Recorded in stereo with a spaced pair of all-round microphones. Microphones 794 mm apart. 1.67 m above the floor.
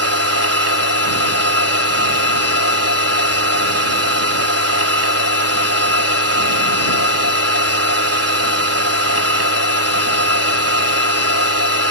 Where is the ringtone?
I don't hear a ringtone.